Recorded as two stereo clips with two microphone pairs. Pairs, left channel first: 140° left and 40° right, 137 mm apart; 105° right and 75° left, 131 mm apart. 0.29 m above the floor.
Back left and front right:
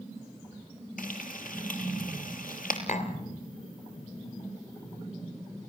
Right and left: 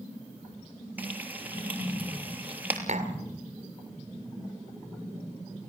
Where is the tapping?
105° left, 1.8 m.